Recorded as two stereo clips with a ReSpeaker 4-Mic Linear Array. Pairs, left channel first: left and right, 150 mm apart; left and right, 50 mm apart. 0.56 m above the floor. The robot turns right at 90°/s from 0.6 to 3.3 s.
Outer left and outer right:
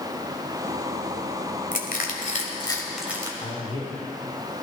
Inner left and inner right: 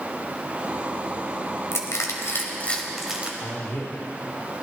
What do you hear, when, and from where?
1.7 s crushing: 60° left (ahead or behind), 1.7 m; by 3.3 s 25° right (ahead or behind), 1.7 m
3.4 s a man speaking: 45° left (ahead or behind), 2 m